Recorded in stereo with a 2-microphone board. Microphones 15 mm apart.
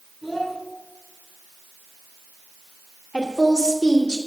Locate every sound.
0.2 s a child speaking: centre (ahead or behind), 6 m
3.1 s a woman speaking: 65° left (ahead or behind), 2.5 m